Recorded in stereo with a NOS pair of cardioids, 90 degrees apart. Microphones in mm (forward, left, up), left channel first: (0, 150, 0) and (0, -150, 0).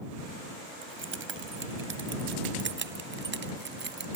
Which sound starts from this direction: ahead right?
Keys jangling, at 0.8 s.